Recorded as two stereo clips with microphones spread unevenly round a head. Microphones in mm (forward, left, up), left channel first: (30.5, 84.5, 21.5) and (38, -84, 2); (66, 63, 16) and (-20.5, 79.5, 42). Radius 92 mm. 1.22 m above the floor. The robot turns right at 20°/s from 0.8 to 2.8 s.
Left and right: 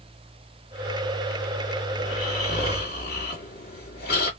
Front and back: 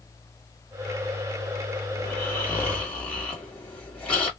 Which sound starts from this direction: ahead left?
Snoring, at 2.0 s.